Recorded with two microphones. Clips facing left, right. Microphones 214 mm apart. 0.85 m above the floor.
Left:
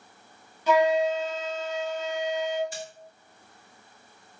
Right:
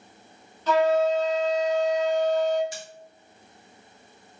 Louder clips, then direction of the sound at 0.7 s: Right 1 dB; 15° left (ahead or behind).